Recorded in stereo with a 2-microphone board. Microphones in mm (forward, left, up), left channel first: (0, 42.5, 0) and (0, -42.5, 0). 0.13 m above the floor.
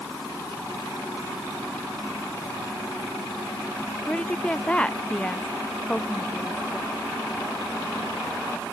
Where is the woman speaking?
15° left (ahead or behind).